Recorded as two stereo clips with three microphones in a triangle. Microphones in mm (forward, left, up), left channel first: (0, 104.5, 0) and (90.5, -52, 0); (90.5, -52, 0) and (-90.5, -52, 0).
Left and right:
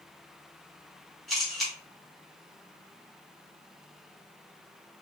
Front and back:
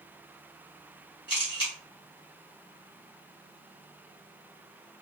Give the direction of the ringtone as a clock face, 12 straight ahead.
I don't hear a ringtone.